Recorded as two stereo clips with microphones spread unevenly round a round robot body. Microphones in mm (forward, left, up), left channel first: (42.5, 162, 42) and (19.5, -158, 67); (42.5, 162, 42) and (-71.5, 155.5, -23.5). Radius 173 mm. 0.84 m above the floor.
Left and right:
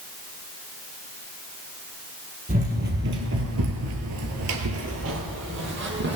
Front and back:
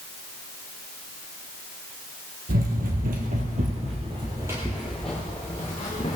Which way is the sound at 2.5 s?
155° right.